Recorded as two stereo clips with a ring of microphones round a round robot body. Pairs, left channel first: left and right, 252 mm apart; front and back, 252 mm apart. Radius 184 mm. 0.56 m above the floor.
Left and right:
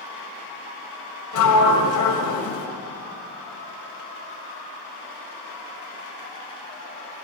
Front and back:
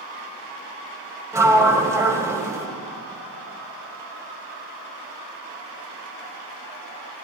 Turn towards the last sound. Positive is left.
turn(degrees=100)